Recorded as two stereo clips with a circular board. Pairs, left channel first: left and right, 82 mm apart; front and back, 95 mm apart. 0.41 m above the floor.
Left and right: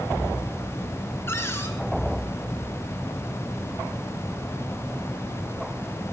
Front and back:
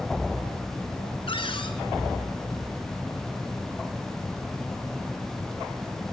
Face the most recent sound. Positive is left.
turn(degrees=30)